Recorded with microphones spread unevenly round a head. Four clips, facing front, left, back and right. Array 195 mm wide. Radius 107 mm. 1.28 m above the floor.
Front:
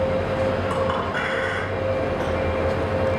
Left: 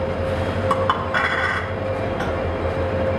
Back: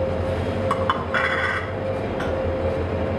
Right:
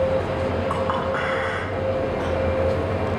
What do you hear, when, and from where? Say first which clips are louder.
0.7 s a clink: left 3 dB, back 1 dB; 125° left, 1.6 m